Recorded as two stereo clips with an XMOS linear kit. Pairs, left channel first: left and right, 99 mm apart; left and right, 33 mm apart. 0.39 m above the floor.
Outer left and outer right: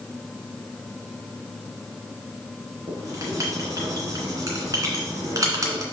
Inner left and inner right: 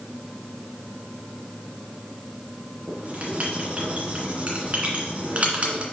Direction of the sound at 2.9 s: 35° right (ahead or behind).